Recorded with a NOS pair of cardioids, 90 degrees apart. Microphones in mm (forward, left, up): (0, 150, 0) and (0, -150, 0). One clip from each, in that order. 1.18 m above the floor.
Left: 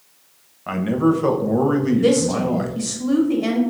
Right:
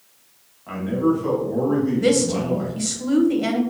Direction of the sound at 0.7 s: 50° left.